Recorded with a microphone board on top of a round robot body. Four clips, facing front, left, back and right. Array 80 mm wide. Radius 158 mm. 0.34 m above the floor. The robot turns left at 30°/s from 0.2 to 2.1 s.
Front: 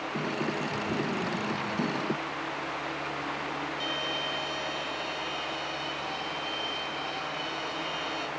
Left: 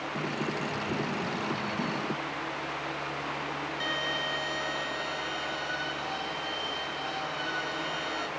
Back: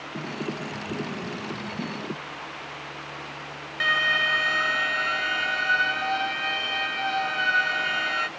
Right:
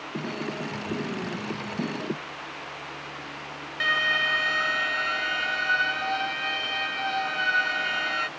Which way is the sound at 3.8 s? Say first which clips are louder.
Right 11 dB, back 9 dB; 140° right.